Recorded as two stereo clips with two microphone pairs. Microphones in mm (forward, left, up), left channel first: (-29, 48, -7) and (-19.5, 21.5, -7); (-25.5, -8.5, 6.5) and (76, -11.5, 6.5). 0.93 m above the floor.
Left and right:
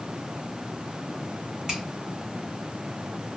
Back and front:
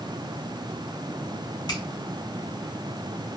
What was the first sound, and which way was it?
A finger snap, 135° right.